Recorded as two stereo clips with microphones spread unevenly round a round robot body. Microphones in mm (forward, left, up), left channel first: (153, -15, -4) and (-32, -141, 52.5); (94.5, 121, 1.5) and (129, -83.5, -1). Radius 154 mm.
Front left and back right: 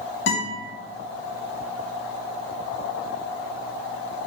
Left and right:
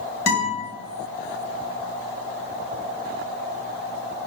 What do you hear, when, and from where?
0.3 s a guitar: 90° left, 2.5 m